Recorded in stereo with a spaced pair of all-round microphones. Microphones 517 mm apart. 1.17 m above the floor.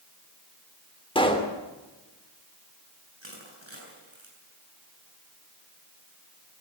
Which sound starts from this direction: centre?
A pop, at 1.1 s.